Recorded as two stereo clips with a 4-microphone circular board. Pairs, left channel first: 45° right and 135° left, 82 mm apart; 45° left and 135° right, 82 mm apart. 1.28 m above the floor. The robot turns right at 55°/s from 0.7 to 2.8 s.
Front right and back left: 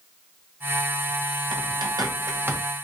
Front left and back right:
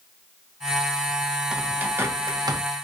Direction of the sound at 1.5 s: 145° left.